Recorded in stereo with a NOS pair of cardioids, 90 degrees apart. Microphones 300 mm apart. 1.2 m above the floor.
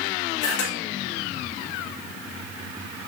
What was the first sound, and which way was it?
A camera shutter, 65° left.